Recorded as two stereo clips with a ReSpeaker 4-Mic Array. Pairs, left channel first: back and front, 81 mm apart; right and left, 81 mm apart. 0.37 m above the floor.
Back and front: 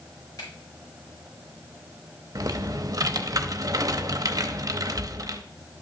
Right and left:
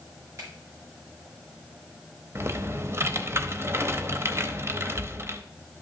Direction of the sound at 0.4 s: 135° left.